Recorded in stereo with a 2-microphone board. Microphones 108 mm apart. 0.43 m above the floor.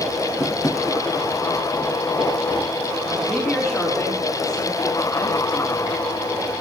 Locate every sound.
0.4 s tapping: 35° left (ahead or behind), 2.5 m
3.2 s a woman speaking: 25° left (ahead or behind), 4 m